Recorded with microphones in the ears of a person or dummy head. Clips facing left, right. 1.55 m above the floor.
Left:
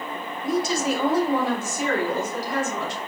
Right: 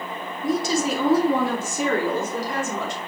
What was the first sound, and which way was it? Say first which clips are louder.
A woman speaking: right 1 dB; 85° right.